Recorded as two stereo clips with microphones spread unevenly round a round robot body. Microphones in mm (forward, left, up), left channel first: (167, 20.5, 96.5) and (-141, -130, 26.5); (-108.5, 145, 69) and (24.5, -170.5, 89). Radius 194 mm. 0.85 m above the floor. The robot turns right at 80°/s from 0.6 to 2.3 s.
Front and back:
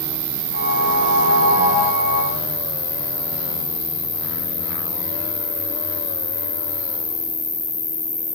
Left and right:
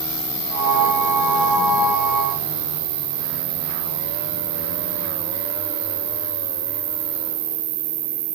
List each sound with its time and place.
0.0 s an insect: straight behind, 5.5 m; by 8.4 s 45° right, 5.5 m